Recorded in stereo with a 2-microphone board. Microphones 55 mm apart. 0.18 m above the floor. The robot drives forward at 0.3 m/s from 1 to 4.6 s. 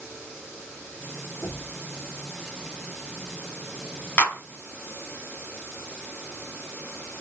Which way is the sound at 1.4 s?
25° left (ahead or behind).